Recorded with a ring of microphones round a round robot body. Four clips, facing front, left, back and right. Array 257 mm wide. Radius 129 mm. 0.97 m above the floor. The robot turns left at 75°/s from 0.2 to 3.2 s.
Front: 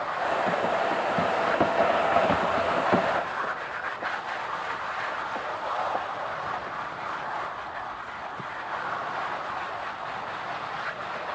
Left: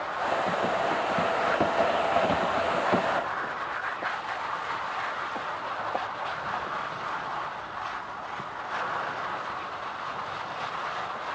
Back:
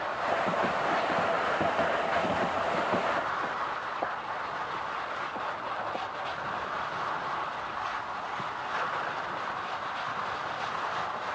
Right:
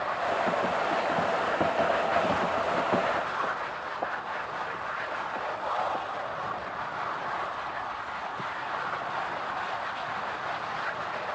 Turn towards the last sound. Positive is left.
No sound to turn to.